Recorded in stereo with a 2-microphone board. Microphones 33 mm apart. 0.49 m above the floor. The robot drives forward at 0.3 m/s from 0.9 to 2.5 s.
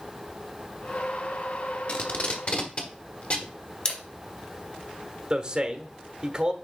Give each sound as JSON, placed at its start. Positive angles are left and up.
{"t": 1.9, "sound": "tape being pulled", "side_deg": 45, "distance_m": 1.3}
{"t": 3.9, "sound": "a camera shutter", "side_deg": 30, "distance_m": 1.7}
{"t": 5.3, "sound": "a man speaking", "side_deg": -25, "distance_m": 1.2}